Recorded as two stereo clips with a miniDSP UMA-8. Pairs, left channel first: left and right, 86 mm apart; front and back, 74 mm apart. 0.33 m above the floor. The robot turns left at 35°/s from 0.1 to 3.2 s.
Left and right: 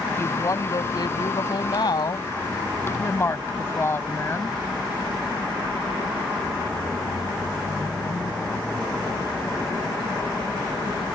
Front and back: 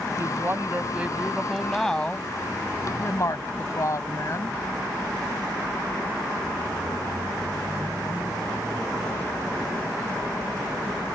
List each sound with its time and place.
0.2 s a woman speaking: 140° left; by 4.6 s 35° left